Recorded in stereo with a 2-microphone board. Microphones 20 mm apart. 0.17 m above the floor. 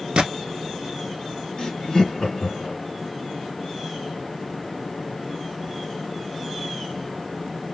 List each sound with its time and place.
0.2 s a gunshot: 65° right (ahead or behind), 0.6 m
1.6 s laughter: 35° left (ahead or behind), 1.5 m